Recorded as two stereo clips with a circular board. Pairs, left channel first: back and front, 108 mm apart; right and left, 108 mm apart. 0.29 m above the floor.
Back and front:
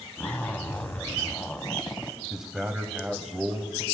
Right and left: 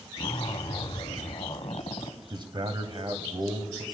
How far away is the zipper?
About 0.8 m.